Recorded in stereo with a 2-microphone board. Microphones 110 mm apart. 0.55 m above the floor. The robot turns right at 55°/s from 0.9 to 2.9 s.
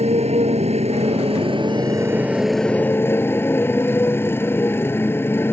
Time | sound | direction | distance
0.0 | a motorcycle | 90° right | ?